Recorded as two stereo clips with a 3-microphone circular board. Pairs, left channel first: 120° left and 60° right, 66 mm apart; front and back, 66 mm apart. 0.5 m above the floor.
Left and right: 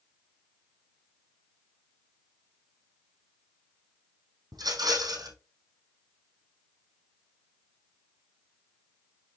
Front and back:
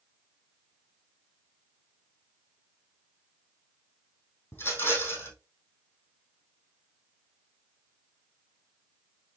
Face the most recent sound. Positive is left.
turn(degrees=-60)